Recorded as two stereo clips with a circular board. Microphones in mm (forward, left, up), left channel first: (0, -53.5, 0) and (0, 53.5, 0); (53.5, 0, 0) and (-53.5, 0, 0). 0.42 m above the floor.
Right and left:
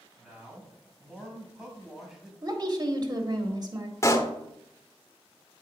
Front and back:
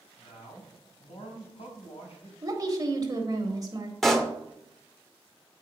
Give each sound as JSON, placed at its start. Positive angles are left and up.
{"t": 0.2, "sound": "a man speaking", "azimuth_deg": 5, "distance_m": 3.0}
{"t": 2.4, "sound": "a woman speaking", "azimuth_deg": 135, "distance_m": 1.7}
{"t": 4.0, "sound": "a pop", "azimuth_deg": -85, "distance_m": 1.0}